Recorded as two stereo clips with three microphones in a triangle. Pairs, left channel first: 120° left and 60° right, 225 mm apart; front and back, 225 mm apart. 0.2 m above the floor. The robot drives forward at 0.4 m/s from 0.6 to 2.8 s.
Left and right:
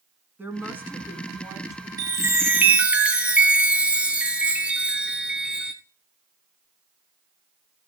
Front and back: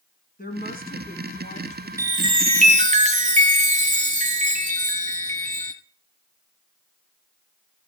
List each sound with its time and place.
0.4 s a woman speaking: 20° left, 1.7 m; by 1.9 s 30° left, 1.4 m
2.0 s a chime: 115° right, 0.9 m; by 5.7 s 140° right, 1.0 m